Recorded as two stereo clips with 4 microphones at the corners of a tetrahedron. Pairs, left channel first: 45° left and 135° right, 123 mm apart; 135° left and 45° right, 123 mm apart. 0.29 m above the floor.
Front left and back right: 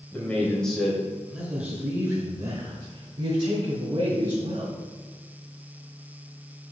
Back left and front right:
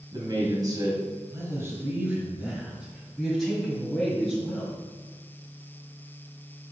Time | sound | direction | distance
0.1 | a man speaking | 25° right | 1.8 m